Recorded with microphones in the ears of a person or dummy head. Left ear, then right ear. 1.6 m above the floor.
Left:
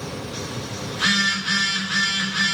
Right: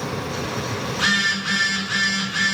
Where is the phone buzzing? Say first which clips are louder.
Even; 5° left (ahead or behind), 3.5 m.